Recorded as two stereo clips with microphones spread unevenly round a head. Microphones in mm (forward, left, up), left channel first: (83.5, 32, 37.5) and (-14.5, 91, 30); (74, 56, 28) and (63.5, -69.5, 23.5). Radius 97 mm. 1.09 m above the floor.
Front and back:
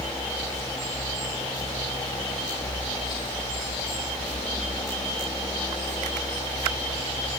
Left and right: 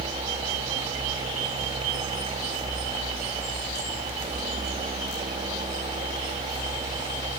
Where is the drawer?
I don't hear a drawer.